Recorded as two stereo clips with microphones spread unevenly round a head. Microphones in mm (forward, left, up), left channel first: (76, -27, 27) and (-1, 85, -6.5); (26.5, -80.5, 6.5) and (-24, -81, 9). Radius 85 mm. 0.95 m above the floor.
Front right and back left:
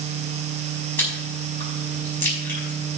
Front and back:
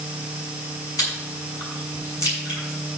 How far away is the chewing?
About 5.5 m.